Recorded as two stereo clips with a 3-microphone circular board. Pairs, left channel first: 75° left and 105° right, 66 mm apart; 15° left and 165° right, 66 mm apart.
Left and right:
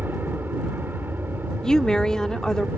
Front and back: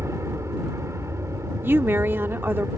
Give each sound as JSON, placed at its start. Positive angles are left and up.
{"t": 0.0, "sound": "an aircraft", "azimuth_deg": -150}
{"t": 1.6, "sound": "a woman speaking", "azimuth_deg": 155}